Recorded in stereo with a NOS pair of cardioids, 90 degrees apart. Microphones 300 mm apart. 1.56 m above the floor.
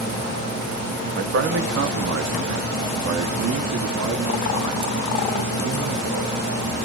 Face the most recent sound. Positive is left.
turn(degrees=-75)